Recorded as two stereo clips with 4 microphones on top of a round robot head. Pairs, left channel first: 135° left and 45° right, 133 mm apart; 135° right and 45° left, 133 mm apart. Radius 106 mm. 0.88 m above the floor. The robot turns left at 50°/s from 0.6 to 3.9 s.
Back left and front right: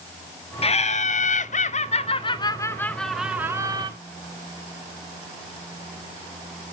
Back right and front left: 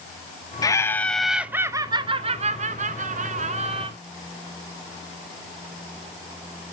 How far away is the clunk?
I don't hear a clunk.